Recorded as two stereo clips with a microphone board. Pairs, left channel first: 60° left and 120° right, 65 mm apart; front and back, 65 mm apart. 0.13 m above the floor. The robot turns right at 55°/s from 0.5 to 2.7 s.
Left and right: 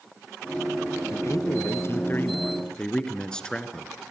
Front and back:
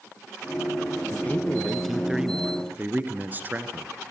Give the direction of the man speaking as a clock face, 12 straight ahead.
10 o'clock.